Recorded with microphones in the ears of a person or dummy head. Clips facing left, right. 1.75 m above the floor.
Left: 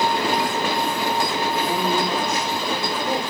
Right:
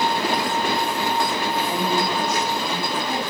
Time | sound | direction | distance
1.7 | a woman speaking | 25° left (ahead or behind) | 3.5 m